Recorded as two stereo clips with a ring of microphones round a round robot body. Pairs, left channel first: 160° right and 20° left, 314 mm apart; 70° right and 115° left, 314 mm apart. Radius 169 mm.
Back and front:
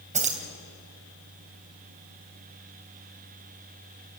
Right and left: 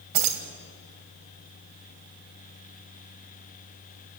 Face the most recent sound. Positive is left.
turn(degrees=90)